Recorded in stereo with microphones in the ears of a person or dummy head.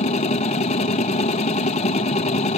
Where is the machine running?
35° left (ahead or behind), 0.8 m.